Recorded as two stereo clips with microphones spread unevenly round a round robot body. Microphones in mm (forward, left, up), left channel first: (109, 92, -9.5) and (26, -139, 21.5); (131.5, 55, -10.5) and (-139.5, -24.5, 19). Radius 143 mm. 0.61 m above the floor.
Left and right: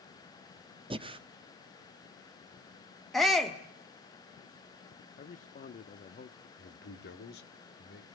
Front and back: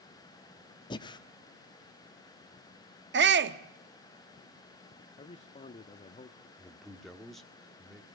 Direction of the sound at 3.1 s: 150° left.